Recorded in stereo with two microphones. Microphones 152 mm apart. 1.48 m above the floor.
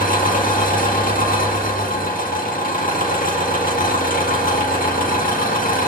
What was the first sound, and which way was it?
An engine running, 65° left (ahead or behind).